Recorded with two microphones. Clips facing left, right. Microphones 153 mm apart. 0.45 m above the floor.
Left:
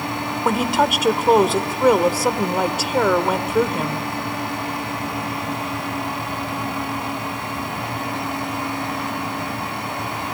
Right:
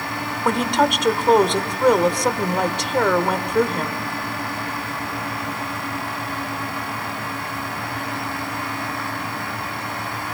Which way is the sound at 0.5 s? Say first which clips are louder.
Even; 5° left (ahead or behind).